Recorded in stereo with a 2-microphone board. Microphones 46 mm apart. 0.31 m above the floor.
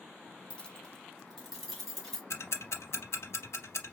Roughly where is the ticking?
Left.